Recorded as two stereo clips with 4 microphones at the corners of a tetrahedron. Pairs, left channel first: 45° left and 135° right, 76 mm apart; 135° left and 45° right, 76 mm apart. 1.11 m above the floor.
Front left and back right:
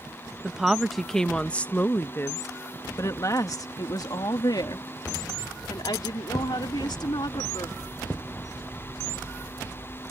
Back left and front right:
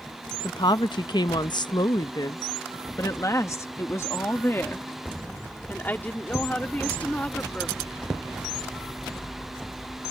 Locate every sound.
0.4 s a woman speaking: 145° left; by 7.8 s 60° left